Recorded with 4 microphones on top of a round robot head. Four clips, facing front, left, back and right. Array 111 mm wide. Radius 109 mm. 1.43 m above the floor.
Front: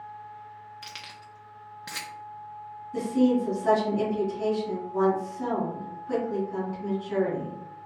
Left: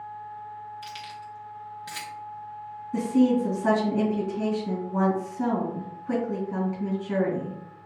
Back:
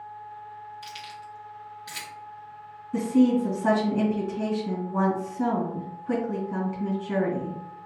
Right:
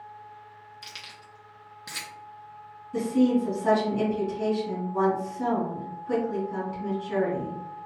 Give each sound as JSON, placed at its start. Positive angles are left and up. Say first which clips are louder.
{"t": 0.8, "sound": "keys jangling", "louder": "left 9 dB, back 5 dB", "azimuth_deg": -15, "distance_m": 0.6}
{"t": 2.9, "sound": "a woman speaking", "louder": "left 1 dB, back 2 dB", "azimuth_deg": 145, "distance_m": 2.5}